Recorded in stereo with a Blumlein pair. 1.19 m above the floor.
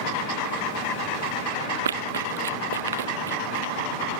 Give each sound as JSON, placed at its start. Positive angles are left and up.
{"t": 1.9, "sound": "running footsteps", "azimuth_deg": -65}